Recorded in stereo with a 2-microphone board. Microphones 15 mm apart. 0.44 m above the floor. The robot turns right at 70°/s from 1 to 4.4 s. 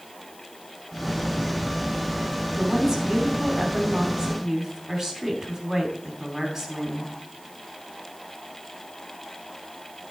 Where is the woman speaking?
160° right, 3 m; by 7.1 s 30° right, 3 m.